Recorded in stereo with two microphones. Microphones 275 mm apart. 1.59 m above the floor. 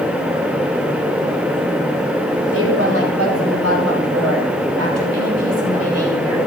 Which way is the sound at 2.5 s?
55° right (ahead or behind).